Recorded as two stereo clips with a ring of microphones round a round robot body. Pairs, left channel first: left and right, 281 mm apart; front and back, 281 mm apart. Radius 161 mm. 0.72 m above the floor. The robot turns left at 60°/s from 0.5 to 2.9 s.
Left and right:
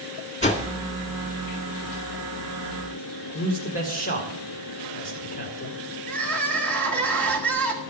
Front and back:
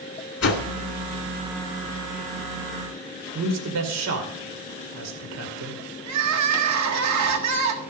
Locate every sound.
0.4 s a whoosh: 25° left, 2 m; by 0.7 s 20° left, 2 m
3.4 s a man speaking: 155° left, 2.5 m
6.1 s crying: 175° left, 1.6 m